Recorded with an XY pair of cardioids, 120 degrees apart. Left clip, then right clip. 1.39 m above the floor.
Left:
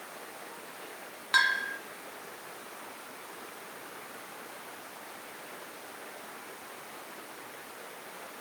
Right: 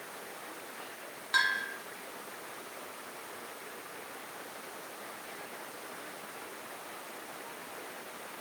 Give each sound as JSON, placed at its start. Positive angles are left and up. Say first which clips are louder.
{"t": 1.3, "sound": "a bell", "louder": "left 3 dB", "azimuth_deg": 25, "distance_m": 2.5}